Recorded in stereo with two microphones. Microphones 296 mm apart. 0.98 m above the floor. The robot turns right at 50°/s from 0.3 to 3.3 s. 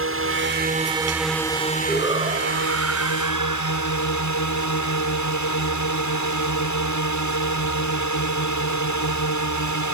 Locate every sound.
0.0 s a drone: 50° right; by 9.9 s 100° left
1.9 s a shout: 175° right; by 4.1 s 105° right